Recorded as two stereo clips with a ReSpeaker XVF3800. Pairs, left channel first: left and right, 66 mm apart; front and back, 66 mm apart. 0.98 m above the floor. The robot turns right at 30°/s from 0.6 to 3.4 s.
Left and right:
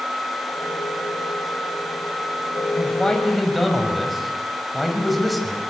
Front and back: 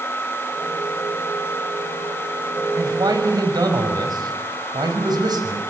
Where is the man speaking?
160° left, 6 m; by 5.6 s straight behind, 6 m.